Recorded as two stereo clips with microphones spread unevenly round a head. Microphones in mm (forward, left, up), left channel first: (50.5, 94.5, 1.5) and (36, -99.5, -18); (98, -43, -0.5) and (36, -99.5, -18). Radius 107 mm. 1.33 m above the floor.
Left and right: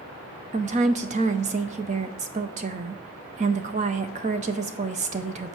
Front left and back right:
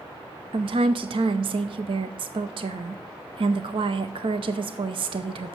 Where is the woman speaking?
150° right, 0.5 m.